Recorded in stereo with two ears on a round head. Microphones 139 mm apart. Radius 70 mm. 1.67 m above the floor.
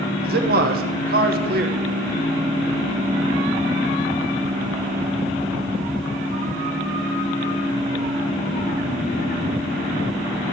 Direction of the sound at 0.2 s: 60° right (ahead or behind).